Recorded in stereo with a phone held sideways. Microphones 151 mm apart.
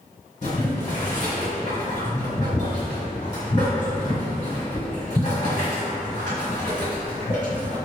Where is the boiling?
60° left (ahead or behind), 1.6 m.